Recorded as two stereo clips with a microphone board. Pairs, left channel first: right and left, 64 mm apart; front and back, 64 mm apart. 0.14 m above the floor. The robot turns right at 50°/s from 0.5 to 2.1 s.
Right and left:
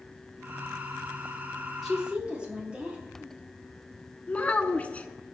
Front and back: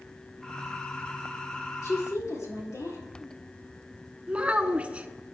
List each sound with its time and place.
1.8 s a woman speaking: 5° left, 3 m; by 3.0 s 20° left, 3 m
4.3 s a child speaking: 130° right, 0.8 m